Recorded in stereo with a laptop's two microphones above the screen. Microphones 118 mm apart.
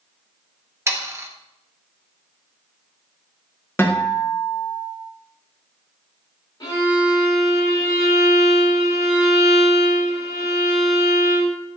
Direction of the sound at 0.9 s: 25° right (ahead or behind).